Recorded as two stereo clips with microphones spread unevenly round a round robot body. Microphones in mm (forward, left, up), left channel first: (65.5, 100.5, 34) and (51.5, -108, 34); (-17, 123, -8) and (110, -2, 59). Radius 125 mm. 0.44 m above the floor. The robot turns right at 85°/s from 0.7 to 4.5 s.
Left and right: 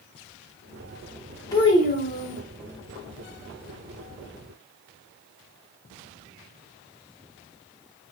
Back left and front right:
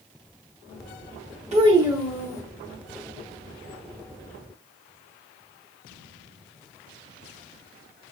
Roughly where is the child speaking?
Ahead.